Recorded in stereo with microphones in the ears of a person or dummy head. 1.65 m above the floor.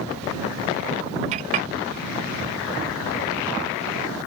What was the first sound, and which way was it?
A clink, 30° right (ahead or behind).